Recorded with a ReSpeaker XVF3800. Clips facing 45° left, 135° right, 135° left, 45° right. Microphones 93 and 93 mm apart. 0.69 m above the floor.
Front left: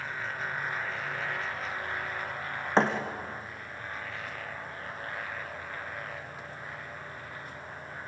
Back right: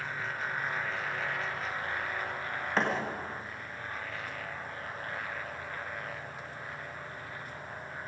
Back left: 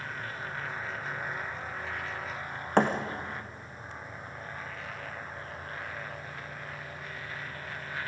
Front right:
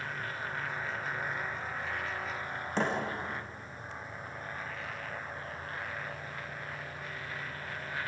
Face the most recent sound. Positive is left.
turn(degrees=105)